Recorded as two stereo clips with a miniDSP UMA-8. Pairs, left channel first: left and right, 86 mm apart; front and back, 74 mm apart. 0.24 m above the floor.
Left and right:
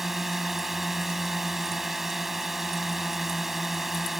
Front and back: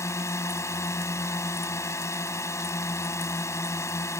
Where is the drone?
5° right.